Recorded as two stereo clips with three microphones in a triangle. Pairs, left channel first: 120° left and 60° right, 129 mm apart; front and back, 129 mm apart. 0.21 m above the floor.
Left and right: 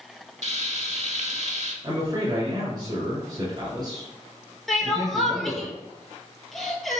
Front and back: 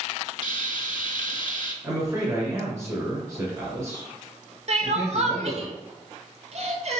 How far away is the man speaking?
About 2 m.